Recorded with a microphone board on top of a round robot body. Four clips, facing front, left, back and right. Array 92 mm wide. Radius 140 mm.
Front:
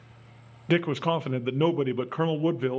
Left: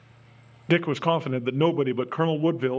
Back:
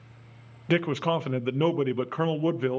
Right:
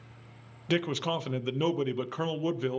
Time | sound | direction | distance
0.7 | a man speaking | 95° left | 0.5 m